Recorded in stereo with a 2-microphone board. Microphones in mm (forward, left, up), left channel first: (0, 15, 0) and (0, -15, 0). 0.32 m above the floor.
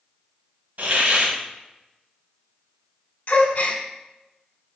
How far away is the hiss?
About 0.9 m.